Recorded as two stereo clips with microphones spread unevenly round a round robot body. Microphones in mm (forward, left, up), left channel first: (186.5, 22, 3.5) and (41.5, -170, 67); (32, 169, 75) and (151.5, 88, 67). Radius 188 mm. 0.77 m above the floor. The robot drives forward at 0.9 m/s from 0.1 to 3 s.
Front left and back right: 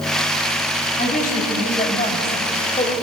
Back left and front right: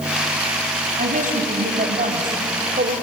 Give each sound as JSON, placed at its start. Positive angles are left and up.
{"t": 1.0, "sound": "a woman speaking", "azimuth_deg": -5, "distance_m": 5.0}